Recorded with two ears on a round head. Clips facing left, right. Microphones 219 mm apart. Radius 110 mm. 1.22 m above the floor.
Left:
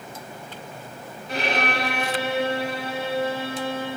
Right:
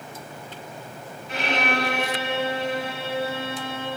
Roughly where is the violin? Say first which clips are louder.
Even; left.